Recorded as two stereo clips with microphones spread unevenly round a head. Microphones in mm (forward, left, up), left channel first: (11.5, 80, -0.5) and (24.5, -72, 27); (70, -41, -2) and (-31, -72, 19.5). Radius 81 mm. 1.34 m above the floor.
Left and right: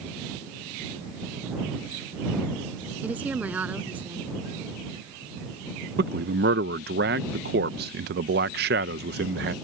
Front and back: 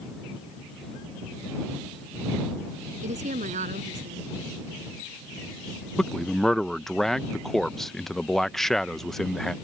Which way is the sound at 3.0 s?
165° right.